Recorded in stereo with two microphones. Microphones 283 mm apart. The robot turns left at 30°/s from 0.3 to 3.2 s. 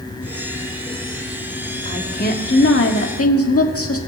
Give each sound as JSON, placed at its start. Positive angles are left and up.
{"t": 1.9, "sound": "a woman speaking", "azimuth_deg": 155, "distance_m": 1.6}